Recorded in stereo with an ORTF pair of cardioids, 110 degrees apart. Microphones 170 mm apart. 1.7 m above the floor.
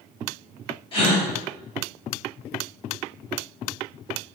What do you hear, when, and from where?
0.9 s a gasp: 30° left, 1.4 m